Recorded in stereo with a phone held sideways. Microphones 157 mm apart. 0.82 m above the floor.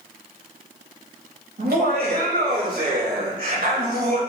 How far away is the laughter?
About 3.5 m.